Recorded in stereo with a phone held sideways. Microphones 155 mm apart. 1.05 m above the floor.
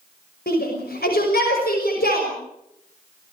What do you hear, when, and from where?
0.5 s a shout: 85° left, 6 m